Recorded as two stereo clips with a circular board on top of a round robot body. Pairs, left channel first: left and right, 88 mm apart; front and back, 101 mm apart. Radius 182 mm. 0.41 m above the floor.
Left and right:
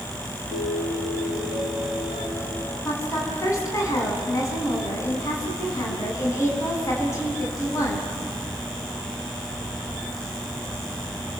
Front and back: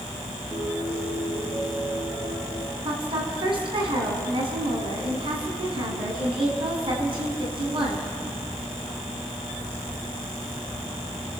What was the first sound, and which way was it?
A piano, 105° left.